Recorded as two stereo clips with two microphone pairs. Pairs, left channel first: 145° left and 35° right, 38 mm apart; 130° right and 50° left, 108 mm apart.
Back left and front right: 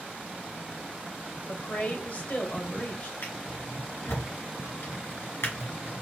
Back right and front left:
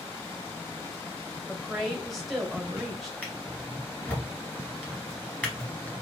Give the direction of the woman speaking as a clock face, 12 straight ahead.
7 o'clock.